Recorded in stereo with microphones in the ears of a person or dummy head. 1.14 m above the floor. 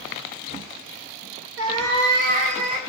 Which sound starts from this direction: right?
A cat meowing, at 1.6 s.